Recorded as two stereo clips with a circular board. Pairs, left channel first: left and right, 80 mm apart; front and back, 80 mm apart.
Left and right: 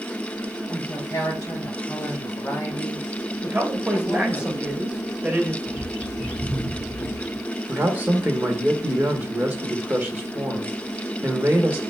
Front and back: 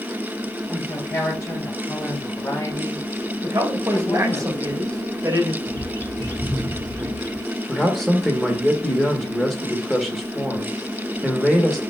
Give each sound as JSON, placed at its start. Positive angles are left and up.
{"t": 0.7, "sound": "a woman speaking", "azimuth_deg": 40, "distance_m": 2.5}
{"t": 3.4, "sound": "a man speaking", "azimuth_deg": -155, "distance_m": 1.2}
{"t": 5.7, "sound": "a bird", "azimuth_deg": -160, "distance_m": 1.6}
{"t": 7.7, "sound": "a man speaking", "azimuth_deg": -90, "distance_m": 0.9}